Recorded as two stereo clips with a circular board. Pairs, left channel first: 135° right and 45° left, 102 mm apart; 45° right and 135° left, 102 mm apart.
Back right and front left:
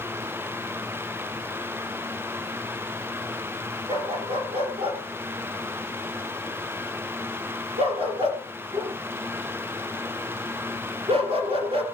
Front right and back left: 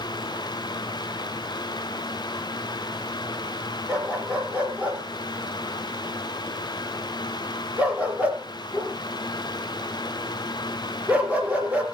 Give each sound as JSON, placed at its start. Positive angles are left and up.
{"t": 3.9, "sound": "a dog barking", "azimuth_deg": 60, "distance_m": 3.5}